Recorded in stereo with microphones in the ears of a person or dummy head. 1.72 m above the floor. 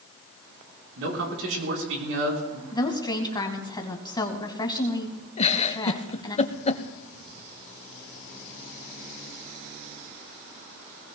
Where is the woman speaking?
25° left (ahead or behind), 1.8 m.